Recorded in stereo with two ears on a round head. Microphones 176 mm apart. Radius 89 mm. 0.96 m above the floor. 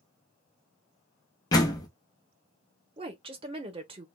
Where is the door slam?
20° left (ahead or behind), 0.6 m.